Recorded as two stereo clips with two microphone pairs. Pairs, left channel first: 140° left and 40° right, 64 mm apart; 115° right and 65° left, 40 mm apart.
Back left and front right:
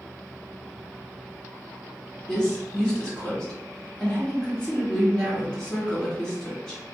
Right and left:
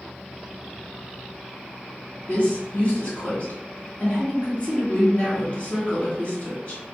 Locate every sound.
2.3 s a woman speaking: 150° right, 1.5 m